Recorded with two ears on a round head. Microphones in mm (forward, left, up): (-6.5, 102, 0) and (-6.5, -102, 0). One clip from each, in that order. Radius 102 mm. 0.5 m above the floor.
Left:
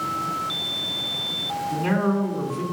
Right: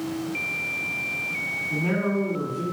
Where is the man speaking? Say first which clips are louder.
Left 2 dB; 55° left (ahead or behind), 3.5 m.